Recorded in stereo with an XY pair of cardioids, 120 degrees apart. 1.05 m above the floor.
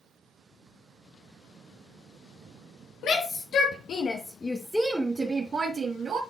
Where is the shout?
70° left, 1.3 m; by 6.2 s 50° right, 1.4 m.